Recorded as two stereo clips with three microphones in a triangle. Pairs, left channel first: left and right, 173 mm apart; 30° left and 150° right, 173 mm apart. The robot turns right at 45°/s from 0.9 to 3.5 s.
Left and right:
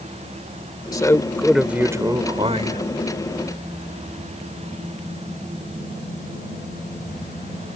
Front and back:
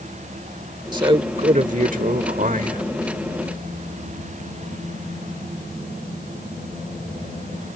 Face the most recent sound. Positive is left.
turn(degrees=-90)